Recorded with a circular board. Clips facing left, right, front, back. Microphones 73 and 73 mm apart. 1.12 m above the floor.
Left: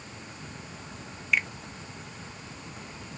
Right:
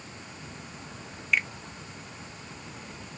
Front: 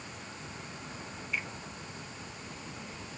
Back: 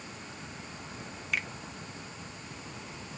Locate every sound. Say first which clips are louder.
1.3 s a finger snap: even, back 3 dB; straight behind, 0.5 m